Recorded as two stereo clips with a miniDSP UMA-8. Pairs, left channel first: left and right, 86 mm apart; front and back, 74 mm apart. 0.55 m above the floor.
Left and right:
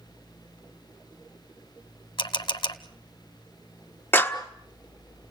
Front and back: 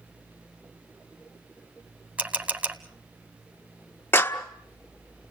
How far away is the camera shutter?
About 1.1 m.